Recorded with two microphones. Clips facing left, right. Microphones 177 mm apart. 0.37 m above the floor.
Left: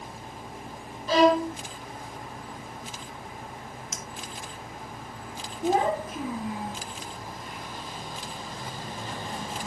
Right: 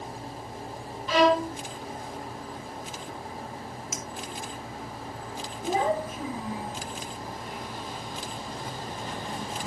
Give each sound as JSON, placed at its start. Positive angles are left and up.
{"t": 1.1, "sound": "a violin", "side_deg": 40, "distance_m": 2.5}
{"t": 3.9, "sound": "a clink", "side_deg": -5, "distance_m": 1.5}
{"t": 5.6, "sound": "a child speaking", "side_deg": 75, "distance_m": 3.0}